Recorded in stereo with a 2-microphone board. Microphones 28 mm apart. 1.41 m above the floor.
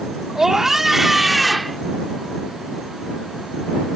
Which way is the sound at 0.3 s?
10° right (ahead or behind).